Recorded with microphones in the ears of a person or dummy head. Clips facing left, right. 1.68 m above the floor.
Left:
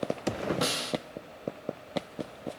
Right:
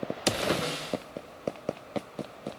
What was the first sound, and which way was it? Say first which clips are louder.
A snare drum: left 1 dB; 65° left (ahead or behind).